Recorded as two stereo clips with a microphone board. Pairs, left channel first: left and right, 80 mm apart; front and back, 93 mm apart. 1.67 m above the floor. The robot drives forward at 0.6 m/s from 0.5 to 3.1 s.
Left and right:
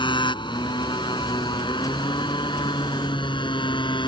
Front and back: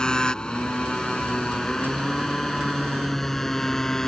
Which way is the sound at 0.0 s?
80° left.